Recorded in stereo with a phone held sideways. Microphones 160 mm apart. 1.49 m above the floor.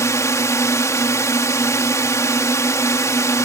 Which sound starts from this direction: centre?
A drone, at 0.0 s.